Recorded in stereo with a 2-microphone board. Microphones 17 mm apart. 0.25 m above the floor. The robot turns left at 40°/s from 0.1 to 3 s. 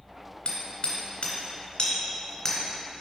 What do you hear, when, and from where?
0.5 s hammering: 55° left (ahead or behind), 2.5 m; by 3.0 s 10° left (ahead or behind), 2.5 m